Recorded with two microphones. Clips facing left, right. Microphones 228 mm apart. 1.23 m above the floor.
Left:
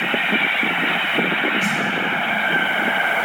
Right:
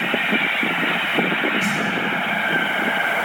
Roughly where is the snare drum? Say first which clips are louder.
Even; right.